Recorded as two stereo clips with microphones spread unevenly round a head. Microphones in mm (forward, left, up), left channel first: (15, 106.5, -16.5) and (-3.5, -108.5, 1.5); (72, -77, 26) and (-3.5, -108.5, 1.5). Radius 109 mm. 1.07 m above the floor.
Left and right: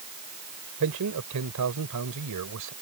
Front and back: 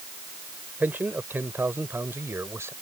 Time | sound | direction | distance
0.8 | a man speaking | 85° right | ?